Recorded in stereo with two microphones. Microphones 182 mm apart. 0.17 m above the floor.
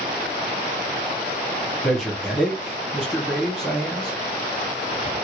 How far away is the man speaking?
About 1.2 m.